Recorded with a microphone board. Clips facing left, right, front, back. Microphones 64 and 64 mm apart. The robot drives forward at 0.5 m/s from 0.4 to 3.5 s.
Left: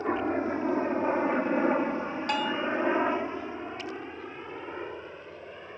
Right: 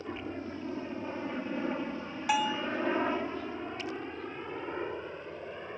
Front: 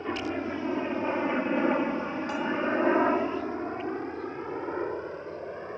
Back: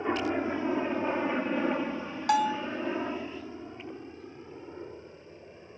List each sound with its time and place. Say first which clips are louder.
0.0 s a helicopter: left 10 dB, back 2 dB; 110° left; by 5.8 s 5° right
2.3 s a bell: right 1 dB, back 5 dB; 175° right